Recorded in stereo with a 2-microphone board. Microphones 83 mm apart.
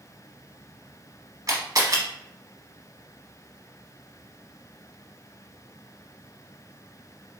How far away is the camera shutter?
About 0.9 m.